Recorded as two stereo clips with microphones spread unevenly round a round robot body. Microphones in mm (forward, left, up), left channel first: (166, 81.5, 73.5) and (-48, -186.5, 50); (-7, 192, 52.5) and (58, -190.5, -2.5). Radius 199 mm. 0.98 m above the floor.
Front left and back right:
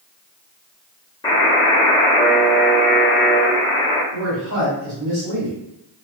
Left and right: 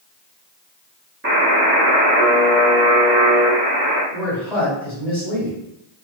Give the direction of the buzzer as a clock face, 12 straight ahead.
1 o'clock.